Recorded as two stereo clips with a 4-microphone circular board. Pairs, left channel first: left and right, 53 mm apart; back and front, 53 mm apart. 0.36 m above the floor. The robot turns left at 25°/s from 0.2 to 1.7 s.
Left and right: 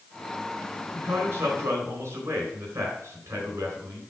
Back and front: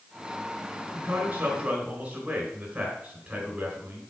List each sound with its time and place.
0.9 s a man speaking: 50° right, 3.5 m; by 4.0 s 65° right, 3.5 m